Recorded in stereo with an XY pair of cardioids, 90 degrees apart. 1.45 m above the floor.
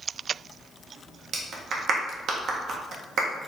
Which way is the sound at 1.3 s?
65° right.